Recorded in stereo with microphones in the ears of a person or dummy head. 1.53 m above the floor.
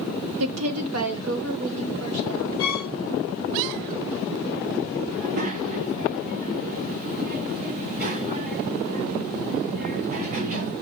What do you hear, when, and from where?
0.4 s a woman speaking: 75° right (ahead or behind), 0.6 m; by 2.5 s 80° right, 2.5 m
2.6 s a violin: 65° right (ahead or behind), 3.5 m
5.1 s a child speaking: 40° right (ahead or behind), 0.5 m